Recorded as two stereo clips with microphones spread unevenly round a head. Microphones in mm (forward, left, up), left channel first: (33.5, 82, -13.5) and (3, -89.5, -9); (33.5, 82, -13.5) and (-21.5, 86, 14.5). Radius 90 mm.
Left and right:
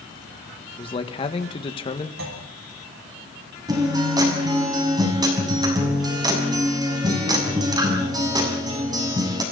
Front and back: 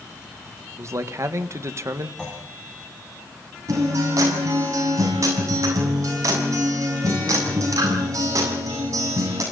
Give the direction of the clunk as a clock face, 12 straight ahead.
3 o'clock.